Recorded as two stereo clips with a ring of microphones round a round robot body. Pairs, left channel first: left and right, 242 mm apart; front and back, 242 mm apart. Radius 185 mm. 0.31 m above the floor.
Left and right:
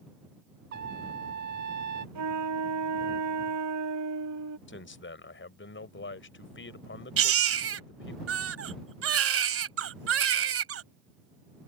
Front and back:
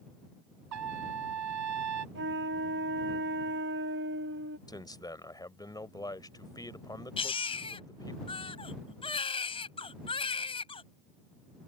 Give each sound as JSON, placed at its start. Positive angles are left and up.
{"t": 0.7, "sound": "a trumpet", "azimuth_deg": -150}
{"t": 2.1, "sound": "a flute", "azimuth_deg": -120}
{"t": 4.7, "sound": "a man speaking", "azimuth_deg": 70}
{"t": 7.2, "sound": "a baby crying", "azimuth_deg": -70}